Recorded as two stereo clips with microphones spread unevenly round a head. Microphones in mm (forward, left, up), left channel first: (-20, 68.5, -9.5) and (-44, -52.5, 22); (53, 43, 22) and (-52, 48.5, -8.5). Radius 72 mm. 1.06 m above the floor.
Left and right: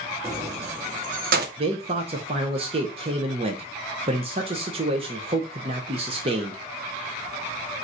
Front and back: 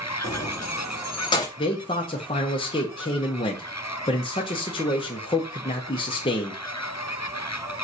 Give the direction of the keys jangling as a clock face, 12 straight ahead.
2 o'clock.